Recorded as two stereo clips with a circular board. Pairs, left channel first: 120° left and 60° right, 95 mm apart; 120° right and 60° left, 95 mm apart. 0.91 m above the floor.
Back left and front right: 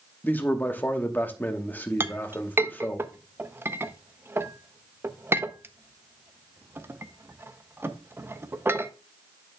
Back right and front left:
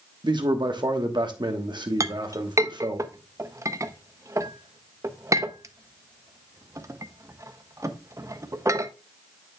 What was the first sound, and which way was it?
A man speaking, 55° left.